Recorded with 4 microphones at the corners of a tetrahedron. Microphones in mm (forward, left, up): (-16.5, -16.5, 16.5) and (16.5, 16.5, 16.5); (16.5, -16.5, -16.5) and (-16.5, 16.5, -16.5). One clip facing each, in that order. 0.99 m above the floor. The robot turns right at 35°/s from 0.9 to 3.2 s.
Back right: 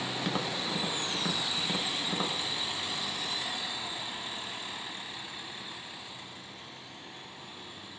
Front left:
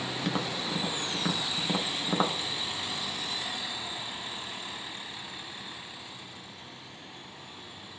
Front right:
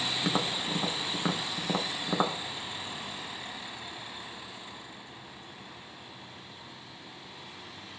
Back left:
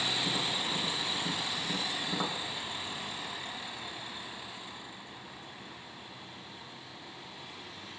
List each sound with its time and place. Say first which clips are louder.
0.2 s tapping: front left 2 dB, front right 3 dB; 50° right, 1.1 m; by 2.4 s 5° left, 1.1 m